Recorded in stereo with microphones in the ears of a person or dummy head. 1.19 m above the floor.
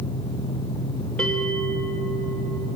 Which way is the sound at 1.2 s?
5° left (ahead or behind).